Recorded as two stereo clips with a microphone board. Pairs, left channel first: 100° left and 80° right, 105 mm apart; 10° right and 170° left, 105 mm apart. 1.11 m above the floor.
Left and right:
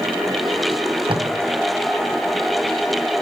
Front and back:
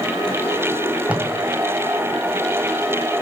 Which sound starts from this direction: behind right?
Tape being pulled, at 0.7 s.